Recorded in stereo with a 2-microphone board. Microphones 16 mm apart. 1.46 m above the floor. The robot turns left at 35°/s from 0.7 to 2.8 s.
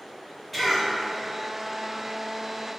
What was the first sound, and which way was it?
A cough, 10° left (ahead or behind).